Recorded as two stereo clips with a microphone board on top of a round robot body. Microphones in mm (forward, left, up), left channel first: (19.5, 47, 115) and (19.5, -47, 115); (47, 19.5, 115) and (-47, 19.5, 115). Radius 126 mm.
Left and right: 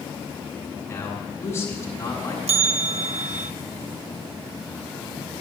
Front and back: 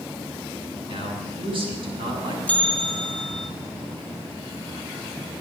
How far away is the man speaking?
About 6 m.